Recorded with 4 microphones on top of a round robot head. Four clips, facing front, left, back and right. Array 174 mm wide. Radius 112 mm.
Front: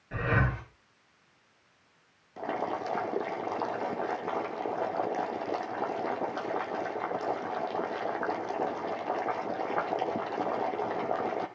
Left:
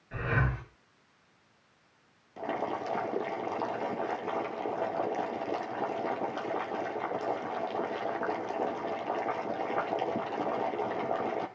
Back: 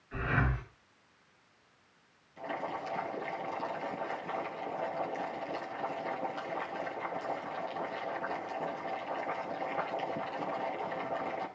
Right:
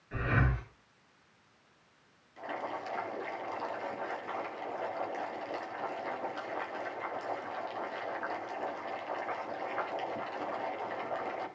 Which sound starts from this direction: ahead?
Breathing, at 0.1 s.